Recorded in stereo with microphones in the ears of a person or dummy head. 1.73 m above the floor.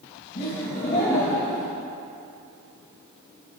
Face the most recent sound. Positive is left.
turn(degrees=20)  # may be behind; listen again after turning